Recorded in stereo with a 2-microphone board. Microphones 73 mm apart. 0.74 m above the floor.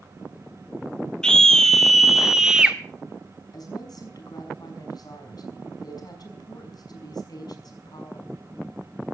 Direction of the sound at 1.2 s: 10° left (ahead or behind).